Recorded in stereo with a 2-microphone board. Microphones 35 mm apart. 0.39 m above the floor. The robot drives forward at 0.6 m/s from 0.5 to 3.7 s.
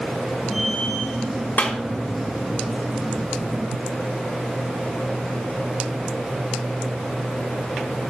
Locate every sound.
1.6 s a clap: 45° left (ahead or behind), 2.5 m; by 1.8 s 40° left (ahead or behind), 2.5 m